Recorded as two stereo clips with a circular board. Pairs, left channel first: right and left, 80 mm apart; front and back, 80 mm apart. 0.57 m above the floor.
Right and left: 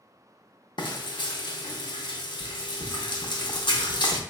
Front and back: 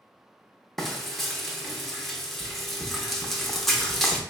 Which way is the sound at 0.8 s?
85° right.